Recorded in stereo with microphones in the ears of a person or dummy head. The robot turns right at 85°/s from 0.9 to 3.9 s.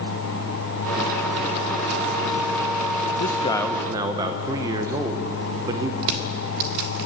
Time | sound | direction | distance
3.2 | a man speaking | 140° left | 0.8 m
6.0 | crushing | 50° right (ahead or behind) | 1.6 m